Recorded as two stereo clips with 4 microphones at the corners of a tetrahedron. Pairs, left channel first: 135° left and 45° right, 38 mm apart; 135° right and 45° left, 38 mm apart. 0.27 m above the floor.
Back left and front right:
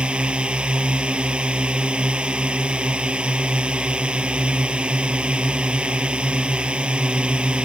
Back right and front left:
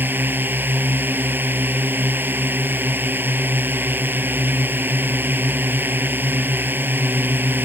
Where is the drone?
15° left.